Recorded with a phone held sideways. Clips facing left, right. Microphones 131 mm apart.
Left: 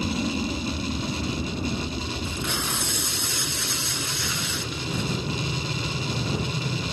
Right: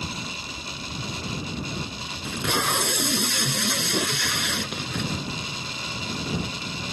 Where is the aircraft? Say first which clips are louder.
Left 9 dB; 65° left (ahead or behind); by 6.9 s 75° left (ahead or behind).